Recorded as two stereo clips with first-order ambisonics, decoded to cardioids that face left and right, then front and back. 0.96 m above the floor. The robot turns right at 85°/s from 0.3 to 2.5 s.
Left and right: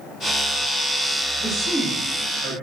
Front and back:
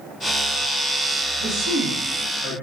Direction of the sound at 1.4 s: 155° left.